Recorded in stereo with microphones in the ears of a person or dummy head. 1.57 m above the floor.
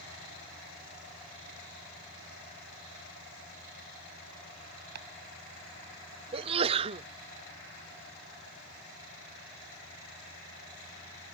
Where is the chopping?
60° right (ahead or behind).